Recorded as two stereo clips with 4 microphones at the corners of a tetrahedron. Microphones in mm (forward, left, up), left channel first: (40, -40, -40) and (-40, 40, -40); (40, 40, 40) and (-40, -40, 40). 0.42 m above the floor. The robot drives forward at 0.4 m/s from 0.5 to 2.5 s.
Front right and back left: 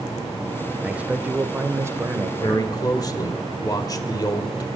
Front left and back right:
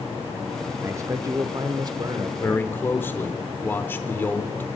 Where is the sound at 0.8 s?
160° right, 0.9 m; by 2.7 s 170° right, 1.3 m.